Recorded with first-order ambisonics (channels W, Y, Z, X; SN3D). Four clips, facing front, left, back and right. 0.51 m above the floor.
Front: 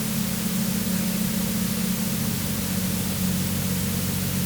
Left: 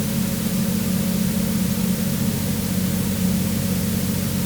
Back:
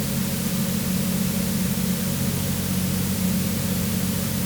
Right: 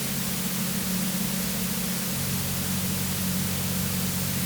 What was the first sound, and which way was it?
Only background noise.